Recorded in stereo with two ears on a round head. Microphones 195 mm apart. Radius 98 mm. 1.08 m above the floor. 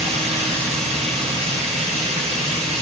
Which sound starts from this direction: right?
Running water, at 0.0 s.